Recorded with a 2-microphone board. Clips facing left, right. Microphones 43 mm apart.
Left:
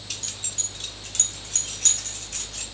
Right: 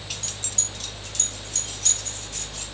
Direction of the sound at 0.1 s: 10° right (ahead or behind).